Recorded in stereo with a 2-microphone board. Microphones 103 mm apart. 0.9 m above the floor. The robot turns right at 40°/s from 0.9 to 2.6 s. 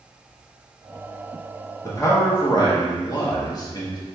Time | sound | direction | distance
1.8 | a man speaking | 45° left | 0.7 m